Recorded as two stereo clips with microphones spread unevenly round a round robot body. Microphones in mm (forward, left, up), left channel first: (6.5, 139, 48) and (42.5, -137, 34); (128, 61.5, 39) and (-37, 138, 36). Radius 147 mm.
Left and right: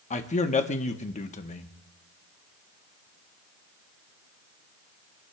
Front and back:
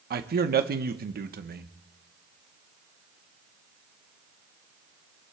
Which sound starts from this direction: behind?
A man speaking, at 0.1 s.